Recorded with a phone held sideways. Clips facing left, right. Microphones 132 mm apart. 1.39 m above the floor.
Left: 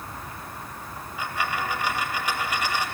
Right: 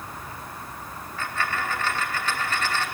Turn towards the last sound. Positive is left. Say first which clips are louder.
# even
turn(degrees=10)  # may be behind; listen again after turning